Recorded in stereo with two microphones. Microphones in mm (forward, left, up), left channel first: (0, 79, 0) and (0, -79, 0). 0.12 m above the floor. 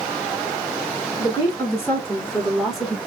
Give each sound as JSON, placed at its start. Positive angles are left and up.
{"t": 1.2, "sound": "a woman speaking", "side_deg": 20, "distance_m": 1.5}